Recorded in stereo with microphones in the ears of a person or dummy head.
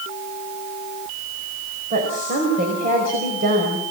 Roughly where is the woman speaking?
Right.